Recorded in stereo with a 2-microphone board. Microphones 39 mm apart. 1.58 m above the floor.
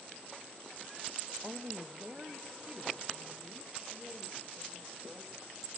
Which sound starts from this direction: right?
A woman speaking, at 1.4 s.